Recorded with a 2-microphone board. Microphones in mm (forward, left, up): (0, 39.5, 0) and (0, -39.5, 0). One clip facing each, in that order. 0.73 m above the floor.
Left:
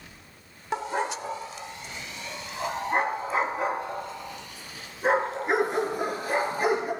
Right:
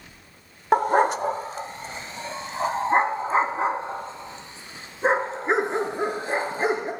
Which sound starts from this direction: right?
A dog barking, at 0.7 s.